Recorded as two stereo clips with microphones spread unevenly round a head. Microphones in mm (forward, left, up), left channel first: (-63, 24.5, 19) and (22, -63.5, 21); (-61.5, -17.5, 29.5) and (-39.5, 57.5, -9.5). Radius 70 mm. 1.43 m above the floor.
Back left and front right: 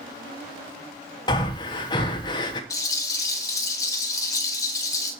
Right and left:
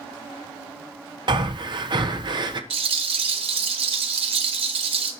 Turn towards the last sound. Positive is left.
turn(degrees=65)